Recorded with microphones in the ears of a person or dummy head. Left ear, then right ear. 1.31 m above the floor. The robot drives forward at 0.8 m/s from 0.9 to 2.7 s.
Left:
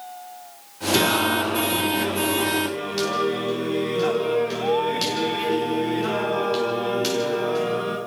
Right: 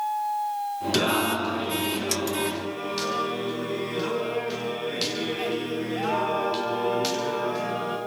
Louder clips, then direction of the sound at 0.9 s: Left 5 dB; 5° right (ahead or behind).